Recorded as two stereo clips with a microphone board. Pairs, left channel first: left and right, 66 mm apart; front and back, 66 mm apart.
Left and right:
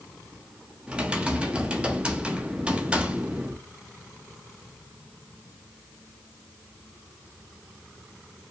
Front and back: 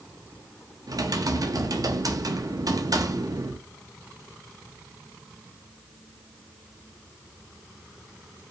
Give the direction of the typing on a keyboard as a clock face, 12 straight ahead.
5 o'clock.